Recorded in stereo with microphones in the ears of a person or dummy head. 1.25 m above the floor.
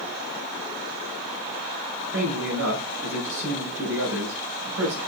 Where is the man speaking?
70° right (ahead or behind), 5 m.